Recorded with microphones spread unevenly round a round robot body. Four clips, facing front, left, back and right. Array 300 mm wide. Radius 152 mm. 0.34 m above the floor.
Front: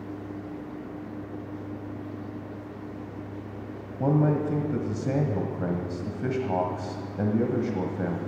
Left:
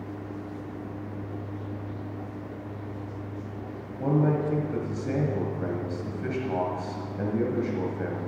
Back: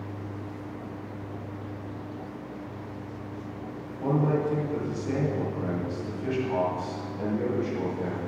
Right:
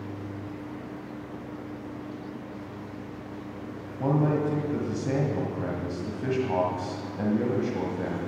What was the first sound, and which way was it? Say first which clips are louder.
A man speaking: even, front 2 dB; 10° right.